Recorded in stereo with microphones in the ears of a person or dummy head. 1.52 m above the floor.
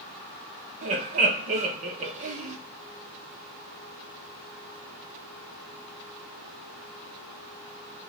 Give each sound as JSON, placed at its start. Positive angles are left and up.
{"t": 0.8, "sound": "laughter", "side_deg": -35, "distance_m": 1.1}